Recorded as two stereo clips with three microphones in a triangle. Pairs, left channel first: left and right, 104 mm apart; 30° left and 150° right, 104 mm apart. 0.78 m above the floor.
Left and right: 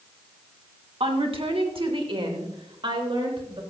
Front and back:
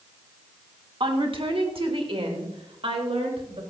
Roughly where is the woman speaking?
Behind right.